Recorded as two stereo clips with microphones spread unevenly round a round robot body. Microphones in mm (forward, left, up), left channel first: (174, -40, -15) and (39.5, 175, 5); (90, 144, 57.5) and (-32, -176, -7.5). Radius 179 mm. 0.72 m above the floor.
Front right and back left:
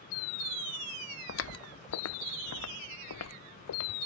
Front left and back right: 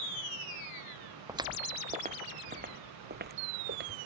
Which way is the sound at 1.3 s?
30° right.